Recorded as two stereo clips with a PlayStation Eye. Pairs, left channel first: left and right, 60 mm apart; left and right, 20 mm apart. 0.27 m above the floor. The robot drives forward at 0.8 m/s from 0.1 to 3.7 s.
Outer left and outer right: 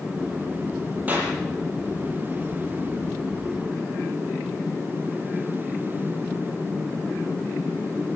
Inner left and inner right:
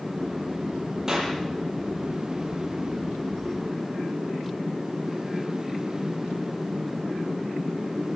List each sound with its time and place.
1.1 s a clap: 30° right (ahead or behind), 6.5 m